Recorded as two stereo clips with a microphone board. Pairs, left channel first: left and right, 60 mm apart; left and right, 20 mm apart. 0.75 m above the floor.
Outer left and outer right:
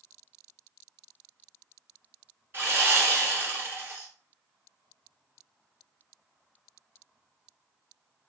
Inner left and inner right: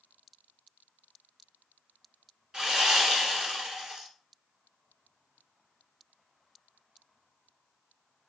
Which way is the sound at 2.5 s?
35° right (ahead or behind).